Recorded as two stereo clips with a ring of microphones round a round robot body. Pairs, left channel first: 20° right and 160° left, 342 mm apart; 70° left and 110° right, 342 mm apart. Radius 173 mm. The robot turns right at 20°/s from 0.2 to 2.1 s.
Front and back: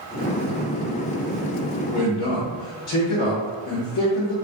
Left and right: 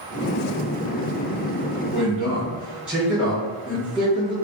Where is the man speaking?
30° right, 1.0 m; by 4.3 s 25° right, 1.0 m.